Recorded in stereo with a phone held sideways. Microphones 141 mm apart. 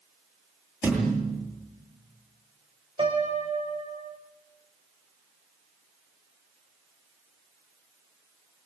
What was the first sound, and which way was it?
A thud, 10° right (ahead or behind).